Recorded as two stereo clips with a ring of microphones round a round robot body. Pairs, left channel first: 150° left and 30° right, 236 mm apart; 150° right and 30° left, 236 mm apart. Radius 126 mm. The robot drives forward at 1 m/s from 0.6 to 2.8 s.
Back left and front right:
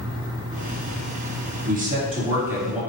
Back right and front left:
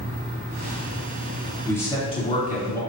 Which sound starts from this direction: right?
A man speaking, at 1.7 s.